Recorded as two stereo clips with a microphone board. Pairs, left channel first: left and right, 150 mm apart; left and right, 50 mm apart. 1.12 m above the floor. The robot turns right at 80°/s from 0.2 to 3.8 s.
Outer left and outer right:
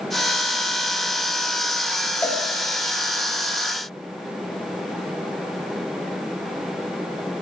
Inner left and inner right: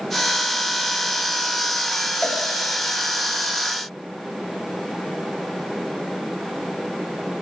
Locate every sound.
2.2 s a cowbell: 15° left (ahead or behind), 0.9 m; by 2.4 s 30° left (ahead or behind), 0.9 m